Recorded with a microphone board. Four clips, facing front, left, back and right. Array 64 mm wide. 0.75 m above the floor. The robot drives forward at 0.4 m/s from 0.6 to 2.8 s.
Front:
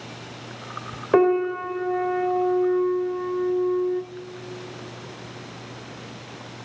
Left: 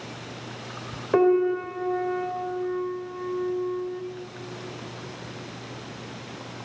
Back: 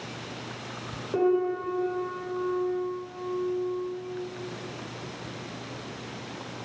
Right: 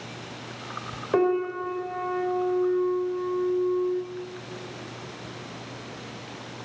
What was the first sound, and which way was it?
A piano, 5° left.